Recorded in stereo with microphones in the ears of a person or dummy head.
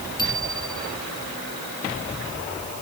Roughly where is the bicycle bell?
Left.